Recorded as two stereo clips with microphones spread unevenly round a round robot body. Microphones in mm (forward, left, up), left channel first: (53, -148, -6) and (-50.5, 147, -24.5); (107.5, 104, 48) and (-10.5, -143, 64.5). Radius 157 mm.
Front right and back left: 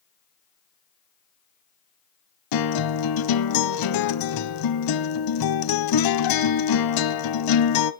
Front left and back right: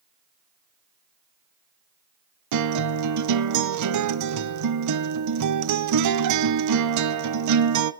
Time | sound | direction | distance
2.5 | a guitar | 95° right | 1.4 m